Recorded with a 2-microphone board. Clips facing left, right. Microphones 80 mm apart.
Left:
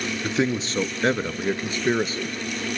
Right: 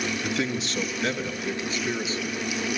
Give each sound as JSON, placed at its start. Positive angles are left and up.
{"t": 0.2, "sound": "a man speaking", "side_deg": 25, "distance_m": 1.4}